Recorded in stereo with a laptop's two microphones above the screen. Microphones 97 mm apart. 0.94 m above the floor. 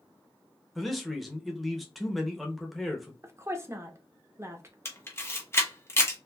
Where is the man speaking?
Centre (ahead or behind), 0.7 m.